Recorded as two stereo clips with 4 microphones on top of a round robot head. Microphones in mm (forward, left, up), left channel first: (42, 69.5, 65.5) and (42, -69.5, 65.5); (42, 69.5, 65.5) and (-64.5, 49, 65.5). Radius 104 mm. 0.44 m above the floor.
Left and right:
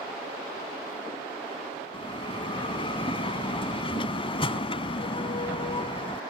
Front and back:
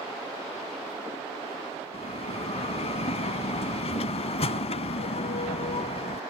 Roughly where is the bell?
Ahead left.